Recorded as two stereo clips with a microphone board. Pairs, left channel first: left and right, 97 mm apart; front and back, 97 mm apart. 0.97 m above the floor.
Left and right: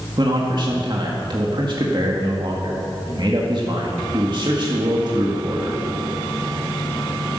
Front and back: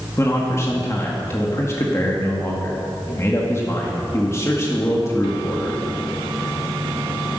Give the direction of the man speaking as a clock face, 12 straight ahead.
2 o'clock.